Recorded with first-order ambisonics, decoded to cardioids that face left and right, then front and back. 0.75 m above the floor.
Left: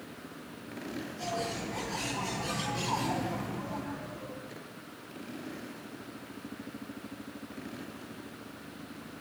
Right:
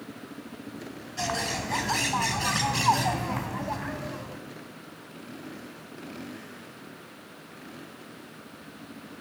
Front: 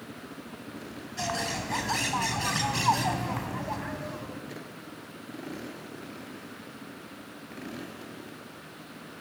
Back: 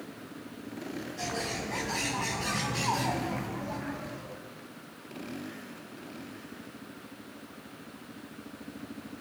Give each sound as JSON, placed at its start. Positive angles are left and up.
{"t": 1.2, "sound": "a bird", "azimuth_deg": -60, "distance_m": 3.5}